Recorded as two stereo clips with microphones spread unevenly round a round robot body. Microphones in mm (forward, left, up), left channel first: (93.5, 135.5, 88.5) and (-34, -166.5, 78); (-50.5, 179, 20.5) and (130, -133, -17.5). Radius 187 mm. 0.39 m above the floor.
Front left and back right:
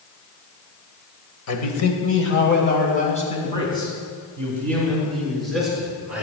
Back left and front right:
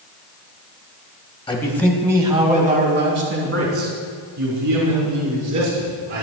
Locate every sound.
1.5 s a man speaking: 40° left, 2 m; by 6.2 s 25° right, 6.5 m